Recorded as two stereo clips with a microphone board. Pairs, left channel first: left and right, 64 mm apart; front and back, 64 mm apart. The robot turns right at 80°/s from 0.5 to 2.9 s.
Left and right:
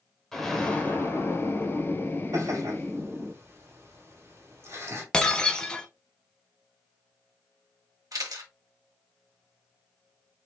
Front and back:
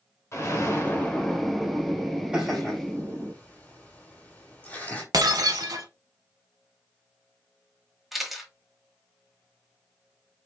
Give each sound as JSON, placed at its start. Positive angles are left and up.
{"t": 0.3, "sound": "an explosion", "azimuth_deg": 10, "distance_m": 1.1}
{"t": 2.3, "sound": "laughter", "azimuth_deg": -100, "distance_m": 1.9}
{"t": 5.1, "sound": "breaking glass", "azimuth_deg": 165, "distance_m": 0.8}
{"t": 8.1, "sound": "a camera shutter", "azimuth_deg": -90, "distance_m": 1.3}